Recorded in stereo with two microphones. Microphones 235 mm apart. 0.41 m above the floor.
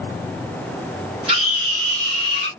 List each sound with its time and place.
1.3 s a scream: 25° right (ahead or behind), 1.2 m; by 2.5 s 50° right (ahead or behind), 1.6 m